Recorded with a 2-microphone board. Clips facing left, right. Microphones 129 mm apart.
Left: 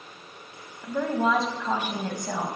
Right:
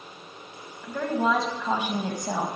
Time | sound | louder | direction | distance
0.8 | a woman speaking | even | 15° left (ahead or behind) | 1.2 m